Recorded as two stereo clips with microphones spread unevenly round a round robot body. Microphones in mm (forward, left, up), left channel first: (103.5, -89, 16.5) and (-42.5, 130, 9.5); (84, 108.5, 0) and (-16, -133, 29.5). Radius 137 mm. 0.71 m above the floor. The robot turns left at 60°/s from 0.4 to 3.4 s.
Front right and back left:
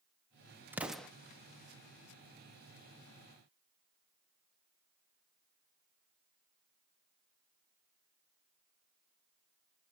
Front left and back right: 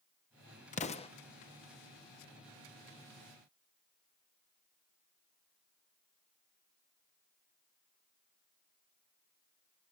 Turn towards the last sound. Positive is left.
turn(degrees=-110)